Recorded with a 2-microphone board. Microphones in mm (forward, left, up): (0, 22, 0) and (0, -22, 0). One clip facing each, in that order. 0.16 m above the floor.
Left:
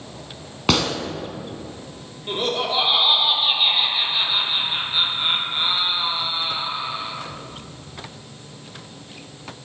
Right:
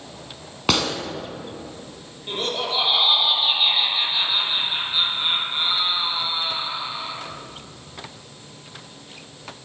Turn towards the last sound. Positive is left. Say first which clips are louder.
# left 3 dB
turn(degrees=10)  # may be behind; listen again after turning